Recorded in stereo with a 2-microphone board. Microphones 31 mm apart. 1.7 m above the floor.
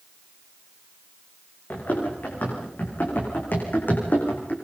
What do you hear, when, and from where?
1.7 s running footsteps: 80° left, 9.5 m; by 4.5 s 75° left (ahead or behind), 6.5 m